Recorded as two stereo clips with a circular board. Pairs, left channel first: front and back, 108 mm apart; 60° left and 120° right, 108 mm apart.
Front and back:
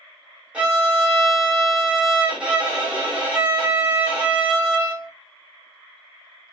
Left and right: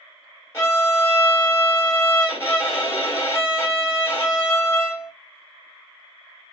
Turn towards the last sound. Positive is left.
turn(degrees=110)